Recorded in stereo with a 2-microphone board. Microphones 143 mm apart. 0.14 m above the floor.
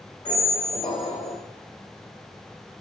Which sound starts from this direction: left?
A squeak, at 0.2 s.